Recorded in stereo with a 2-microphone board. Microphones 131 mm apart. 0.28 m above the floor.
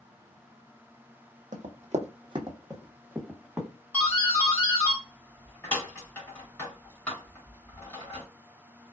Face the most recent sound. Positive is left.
turn(degrees=15)  # may be behind; listen again after turning